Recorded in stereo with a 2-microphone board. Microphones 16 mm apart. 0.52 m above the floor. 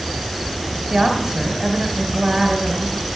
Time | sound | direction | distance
0.9 | a woman speaking | 50° right (ahead or behind) | 1.7 m